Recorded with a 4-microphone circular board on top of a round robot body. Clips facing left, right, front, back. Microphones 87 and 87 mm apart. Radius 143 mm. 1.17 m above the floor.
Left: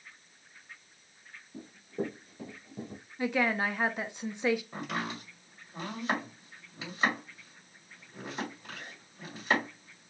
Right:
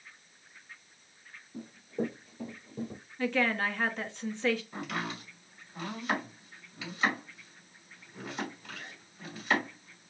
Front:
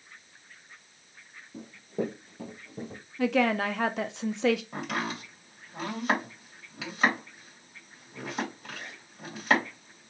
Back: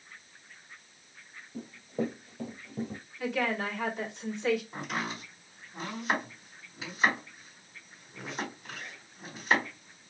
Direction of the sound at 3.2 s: 15° left.